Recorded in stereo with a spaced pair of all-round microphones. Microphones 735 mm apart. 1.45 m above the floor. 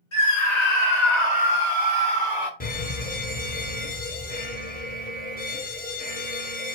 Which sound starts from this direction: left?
A scream, at 0.1 s.